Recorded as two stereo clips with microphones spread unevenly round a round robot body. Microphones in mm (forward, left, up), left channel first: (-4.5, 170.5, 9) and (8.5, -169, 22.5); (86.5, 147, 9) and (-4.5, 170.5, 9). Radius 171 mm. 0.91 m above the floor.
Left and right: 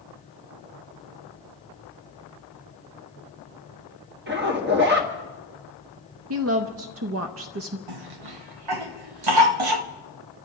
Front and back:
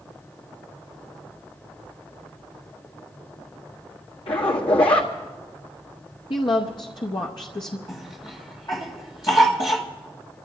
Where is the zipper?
30° right, 1.6 m.